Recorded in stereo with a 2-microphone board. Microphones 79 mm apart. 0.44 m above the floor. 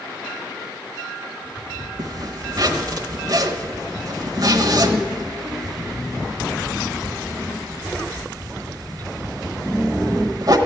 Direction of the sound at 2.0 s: 50° right (ahead or behind).